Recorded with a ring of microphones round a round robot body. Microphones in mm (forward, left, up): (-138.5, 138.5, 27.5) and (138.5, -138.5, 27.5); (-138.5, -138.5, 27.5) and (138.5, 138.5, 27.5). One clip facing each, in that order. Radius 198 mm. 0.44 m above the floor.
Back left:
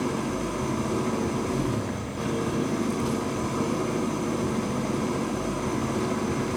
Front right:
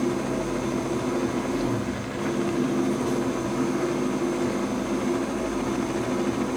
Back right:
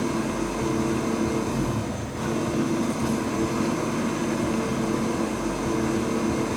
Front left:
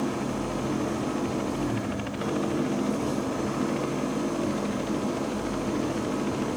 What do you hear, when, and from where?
0.0 s an engine running: 165° left, 4.5 m